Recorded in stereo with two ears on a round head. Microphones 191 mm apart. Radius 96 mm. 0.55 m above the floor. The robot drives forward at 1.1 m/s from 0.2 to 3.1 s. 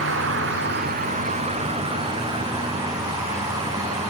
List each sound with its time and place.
0.0 s an insect: 60° right (ahead or behind), 1.1 m; by 4.1 s 15° right (ahead or behind), 3.5 m